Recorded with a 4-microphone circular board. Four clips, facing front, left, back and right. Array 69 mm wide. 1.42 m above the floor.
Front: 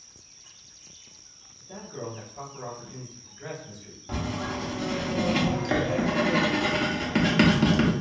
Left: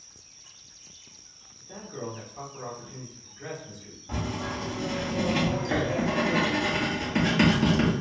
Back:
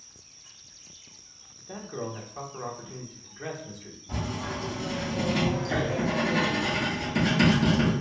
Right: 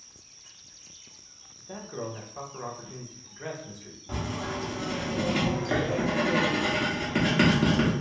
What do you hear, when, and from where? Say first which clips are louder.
1.6 s a man speaking: right 1 dB, back 2 dB; 145° right, 1.2 m
4.1 s writing: left 1 dB, front 2 dB; 15° right, 1.3 m